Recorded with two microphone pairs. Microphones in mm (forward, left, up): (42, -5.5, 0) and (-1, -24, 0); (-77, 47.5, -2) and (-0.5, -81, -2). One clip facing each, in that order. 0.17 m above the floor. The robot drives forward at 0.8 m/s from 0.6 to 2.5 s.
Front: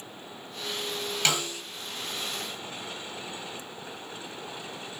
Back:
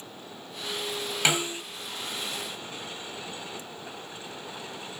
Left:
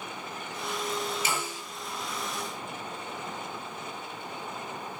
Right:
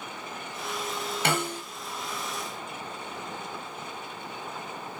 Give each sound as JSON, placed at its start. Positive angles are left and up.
{"t": 1.2, "sound": "a snare drum", "azimuth_deg": -85, "distance_m": 1.7}